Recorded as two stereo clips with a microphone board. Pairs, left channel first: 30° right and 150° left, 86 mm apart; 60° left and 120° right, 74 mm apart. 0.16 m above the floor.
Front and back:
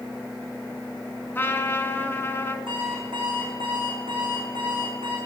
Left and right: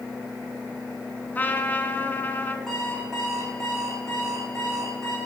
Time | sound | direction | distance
1.4 | a trumpet | 15° left | 0.6 m
2.7 | an alarm clock | 145° left | 5 m